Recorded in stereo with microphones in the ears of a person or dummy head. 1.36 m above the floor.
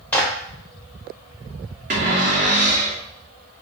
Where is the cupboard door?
40° right (ahead or behind), 1.2 m.